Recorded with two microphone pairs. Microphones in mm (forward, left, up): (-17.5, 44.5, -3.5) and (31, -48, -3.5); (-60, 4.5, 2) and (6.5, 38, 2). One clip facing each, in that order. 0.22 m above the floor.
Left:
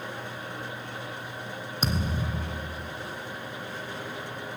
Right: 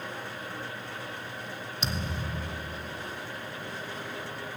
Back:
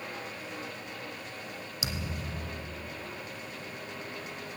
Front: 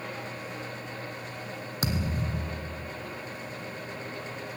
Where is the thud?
70° left, 1.6 m.